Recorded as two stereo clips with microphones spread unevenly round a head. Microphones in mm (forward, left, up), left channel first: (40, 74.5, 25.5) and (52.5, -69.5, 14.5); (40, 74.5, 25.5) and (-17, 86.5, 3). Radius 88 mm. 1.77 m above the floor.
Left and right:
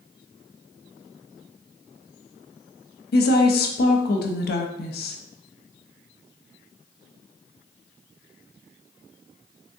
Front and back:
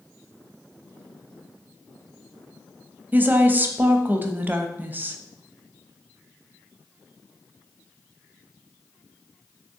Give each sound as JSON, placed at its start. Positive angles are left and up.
{"t": 3.1, "sound": "a woman speaking", "azimuth_deg": 100, "distance_m": 0.5}